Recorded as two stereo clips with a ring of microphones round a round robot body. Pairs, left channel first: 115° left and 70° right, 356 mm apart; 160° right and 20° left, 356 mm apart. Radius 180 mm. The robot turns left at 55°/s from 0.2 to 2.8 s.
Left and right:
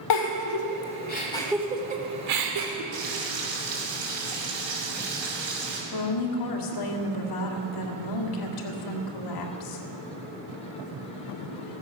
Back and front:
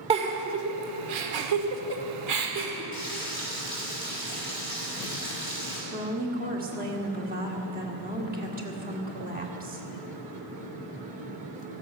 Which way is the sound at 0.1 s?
95° left.